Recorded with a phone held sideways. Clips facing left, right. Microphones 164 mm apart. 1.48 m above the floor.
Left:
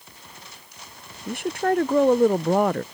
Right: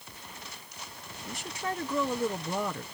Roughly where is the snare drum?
I don't hear a snare drum.